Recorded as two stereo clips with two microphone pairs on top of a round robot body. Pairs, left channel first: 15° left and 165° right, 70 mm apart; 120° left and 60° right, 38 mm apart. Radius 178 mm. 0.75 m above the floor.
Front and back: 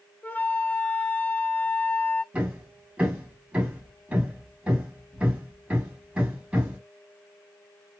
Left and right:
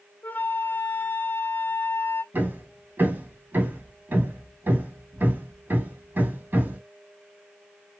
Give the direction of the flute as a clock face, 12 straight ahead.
9 o'clock.